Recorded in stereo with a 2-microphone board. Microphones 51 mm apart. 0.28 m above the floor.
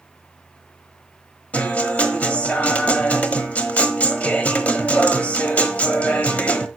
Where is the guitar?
30° left (ahead or behind), 1.1 m.